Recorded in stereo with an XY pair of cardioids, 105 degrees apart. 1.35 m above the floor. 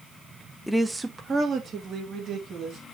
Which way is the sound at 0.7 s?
5° left.